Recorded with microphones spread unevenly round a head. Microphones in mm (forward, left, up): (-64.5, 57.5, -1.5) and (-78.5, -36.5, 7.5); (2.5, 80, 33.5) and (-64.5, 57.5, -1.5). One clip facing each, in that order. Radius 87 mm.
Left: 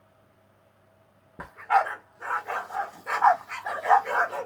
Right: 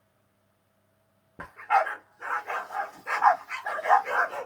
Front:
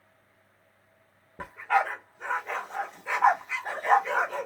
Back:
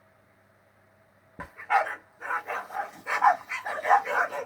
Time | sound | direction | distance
1.4 | a dog barking | 10° right | 0.6 m